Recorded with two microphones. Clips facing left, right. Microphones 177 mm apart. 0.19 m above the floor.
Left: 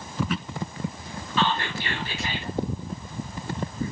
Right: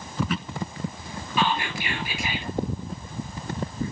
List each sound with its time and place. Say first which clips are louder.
1.4 s whispering: even; 10° right (ahead or behind), 3.5 m